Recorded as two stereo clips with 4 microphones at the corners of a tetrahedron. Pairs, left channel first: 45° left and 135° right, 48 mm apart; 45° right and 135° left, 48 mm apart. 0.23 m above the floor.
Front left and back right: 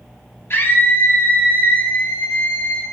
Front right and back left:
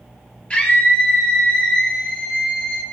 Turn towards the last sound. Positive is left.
turn(degrees=25)